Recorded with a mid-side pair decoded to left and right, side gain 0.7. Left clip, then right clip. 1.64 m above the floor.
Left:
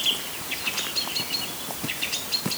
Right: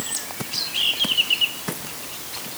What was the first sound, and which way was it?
Only background noise.